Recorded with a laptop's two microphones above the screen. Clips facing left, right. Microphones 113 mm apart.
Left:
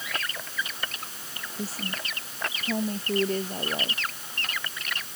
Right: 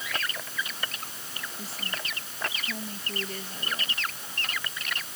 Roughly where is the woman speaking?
Left.